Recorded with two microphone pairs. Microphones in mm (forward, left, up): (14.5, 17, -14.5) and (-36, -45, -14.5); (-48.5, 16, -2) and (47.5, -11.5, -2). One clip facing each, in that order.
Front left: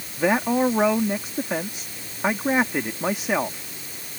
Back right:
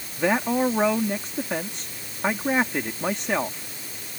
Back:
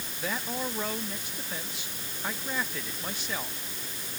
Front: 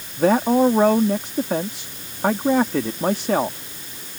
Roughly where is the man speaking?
Ahead right.